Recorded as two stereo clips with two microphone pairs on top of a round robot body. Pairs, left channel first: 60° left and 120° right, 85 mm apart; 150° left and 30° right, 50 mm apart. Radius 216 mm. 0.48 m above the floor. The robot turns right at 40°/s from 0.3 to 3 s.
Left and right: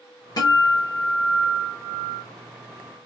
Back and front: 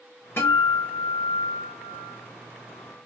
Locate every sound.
0.4 s a guitar: 110° left, 0.5 m; by 2.2 s 175° right, 0.5 m